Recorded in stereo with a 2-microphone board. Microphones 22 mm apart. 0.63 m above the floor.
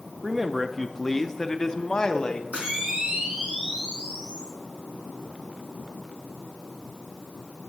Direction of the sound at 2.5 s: 80° right.